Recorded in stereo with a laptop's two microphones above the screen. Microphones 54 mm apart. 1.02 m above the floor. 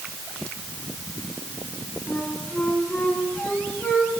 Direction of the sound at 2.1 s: 30° left (ahead or behind).